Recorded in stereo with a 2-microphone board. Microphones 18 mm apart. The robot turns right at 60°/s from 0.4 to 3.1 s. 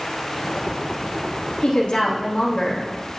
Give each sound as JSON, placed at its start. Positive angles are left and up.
{"t": 1.6, "sound": "a woman speaking", "azimuth_deg": 80, "distance_m": 2.5}